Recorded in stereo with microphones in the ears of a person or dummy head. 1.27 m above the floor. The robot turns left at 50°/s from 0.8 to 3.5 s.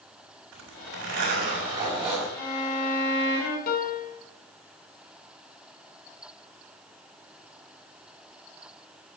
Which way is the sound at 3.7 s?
50° left (ahead or behind).